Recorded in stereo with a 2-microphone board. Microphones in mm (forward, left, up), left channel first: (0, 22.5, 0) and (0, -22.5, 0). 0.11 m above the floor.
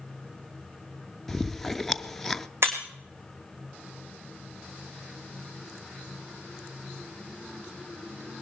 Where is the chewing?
5° left (ahead or behind), 0.5 m.